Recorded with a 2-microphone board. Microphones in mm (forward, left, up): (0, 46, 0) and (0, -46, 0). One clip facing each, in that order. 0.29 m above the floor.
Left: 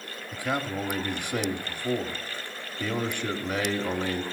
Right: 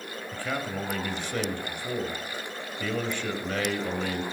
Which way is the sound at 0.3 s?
15° left (ahead or behind).